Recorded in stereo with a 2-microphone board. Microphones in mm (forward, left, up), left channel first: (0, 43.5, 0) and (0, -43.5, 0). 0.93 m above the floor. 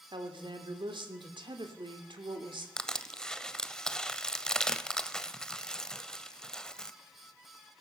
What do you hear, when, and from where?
0.1 s a woman speaking: 65° right (ahead or behind), 2 m
2.8 s crushing: 10° left (ahead or behind), 0.9 m